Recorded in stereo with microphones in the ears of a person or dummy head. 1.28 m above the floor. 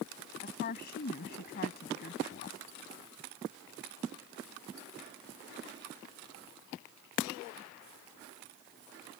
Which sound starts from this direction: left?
A woman speaking, at 0.4 s.